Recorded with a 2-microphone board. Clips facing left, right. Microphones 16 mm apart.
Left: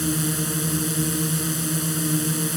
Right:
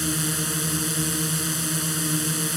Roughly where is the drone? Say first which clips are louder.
Left 1 dB; centre.